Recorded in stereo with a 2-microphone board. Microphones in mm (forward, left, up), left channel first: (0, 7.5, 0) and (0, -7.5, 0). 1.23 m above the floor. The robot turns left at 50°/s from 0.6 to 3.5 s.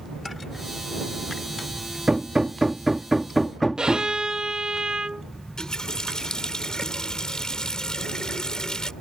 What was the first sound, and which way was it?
Hammering, 55° right (ahead or behind).